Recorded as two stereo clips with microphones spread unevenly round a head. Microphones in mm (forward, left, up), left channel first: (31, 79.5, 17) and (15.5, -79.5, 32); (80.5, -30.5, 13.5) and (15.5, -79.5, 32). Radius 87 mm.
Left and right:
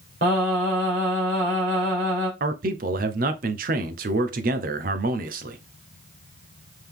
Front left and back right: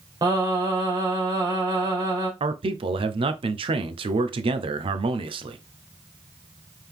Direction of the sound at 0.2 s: 125° right.